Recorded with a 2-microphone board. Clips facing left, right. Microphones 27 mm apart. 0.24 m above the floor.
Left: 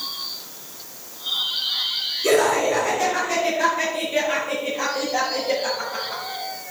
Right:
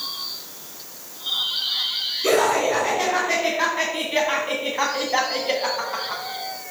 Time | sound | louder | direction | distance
2.2 | laughter | left 1 dB | 35° right (ahead or behind) | 2.5 m